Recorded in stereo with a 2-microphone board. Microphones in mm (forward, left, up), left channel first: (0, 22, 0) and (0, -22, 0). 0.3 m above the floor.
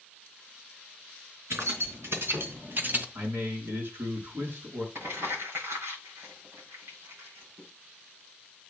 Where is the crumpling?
70° right (ahead or behind), 7 m.